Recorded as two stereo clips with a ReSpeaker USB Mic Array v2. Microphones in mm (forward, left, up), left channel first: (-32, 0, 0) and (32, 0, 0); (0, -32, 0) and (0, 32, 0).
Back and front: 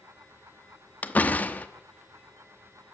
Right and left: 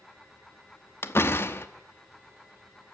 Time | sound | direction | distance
1.0 | a door slam | 125° right | 0.9 m